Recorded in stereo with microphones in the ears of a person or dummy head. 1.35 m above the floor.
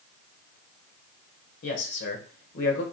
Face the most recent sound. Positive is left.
turn(degrees=70)  # may be behind; listen again after turning